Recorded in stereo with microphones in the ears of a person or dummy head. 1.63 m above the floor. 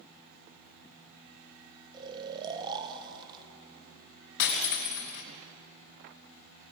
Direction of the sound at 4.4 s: 60° left (ahead or behind).